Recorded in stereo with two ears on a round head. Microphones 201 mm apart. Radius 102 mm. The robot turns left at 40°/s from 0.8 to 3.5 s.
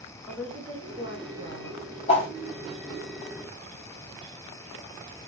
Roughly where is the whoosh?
Left.